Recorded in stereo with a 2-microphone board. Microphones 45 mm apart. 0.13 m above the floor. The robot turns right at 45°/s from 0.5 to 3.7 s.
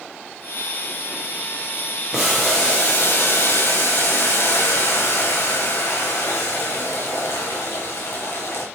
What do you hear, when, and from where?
2.1 s boiling: 10° right, 4.5 m; by 8.7 s 65° left, 4.5 m